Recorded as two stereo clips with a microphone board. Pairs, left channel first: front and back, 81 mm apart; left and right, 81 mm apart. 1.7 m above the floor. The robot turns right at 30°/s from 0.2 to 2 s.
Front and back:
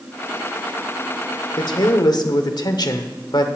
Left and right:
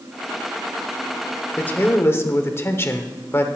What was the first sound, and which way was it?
A man speaking, 20° left.